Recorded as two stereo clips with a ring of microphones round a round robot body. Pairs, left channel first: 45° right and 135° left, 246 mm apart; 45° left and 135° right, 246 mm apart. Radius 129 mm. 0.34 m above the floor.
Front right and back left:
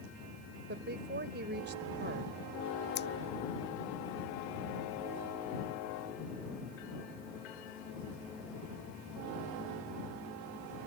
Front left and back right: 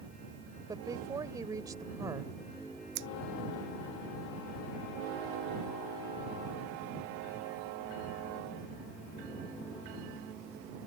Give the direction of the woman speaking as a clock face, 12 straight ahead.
7 o'clock.